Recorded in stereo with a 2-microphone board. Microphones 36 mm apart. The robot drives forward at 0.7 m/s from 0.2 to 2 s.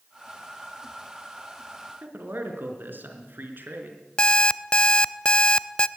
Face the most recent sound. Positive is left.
turn(degrees=25)  # may be behind; listen again after turning